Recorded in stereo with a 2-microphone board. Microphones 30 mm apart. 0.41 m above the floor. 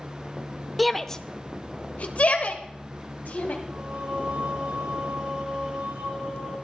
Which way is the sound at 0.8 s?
Centre (ahead or behind).